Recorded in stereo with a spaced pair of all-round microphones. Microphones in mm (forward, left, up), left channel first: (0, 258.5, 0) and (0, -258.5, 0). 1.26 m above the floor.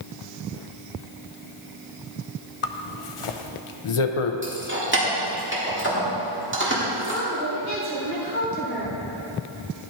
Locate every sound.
2.6 s a zipper: 70° left (ahead or behind), 0.6 m
4.4 s keys jangling: 20° right (ahead or behind), 1.9 m
7.0 s a woman speaking: 25° right (ahead or behind), 3.5 m